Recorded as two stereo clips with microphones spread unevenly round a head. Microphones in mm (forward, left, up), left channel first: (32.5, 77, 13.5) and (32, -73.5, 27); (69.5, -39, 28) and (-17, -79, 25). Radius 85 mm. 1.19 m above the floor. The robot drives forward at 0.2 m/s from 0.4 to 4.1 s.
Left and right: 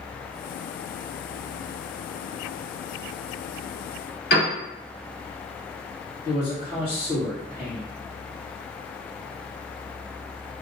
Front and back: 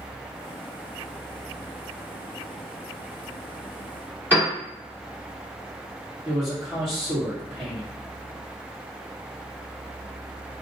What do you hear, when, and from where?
4.3 s a piano: 125° left, 1.7 m
6.2 s a man speaking: 140° left, 1.6 m